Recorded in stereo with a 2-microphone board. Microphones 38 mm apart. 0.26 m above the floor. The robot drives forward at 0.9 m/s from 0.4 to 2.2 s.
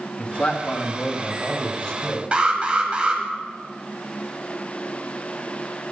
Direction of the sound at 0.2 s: 30° left (ahead or behind).